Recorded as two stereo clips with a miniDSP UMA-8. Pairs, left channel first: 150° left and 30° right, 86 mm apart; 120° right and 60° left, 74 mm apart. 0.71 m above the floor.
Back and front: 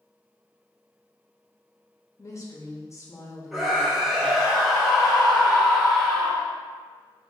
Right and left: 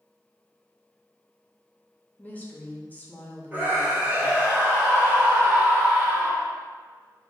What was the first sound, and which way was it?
A woman speaking, straight behind.